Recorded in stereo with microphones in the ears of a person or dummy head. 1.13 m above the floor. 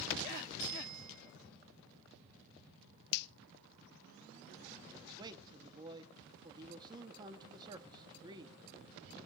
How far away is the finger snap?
About 0.5 m.